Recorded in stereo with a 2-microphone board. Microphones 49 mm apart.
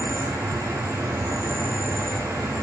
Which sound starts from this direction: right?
An insect, at 0.0 s.